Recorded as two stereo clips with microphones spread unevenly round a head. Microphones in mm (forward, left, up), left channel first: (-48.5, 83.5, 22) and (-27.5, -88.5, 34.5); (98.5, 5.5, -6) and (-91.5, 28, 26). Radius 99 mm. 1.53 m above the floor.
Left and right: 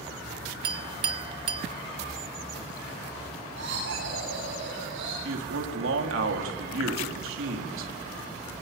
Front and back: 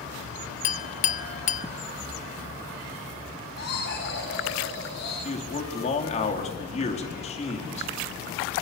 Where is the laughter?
50° right, 8.5 m.